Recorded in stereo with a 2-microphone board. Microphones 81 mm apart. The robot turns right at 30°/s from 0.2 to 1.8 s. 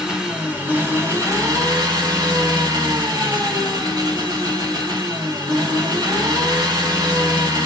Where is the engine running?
170° right, 0.9 m; by 7.7 s 120° right, 0.9 m.